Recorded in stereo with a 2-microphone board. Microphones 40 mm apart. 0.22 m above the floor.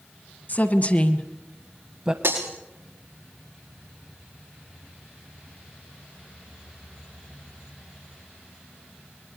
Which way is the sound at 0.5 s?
45° left (ahead or behind).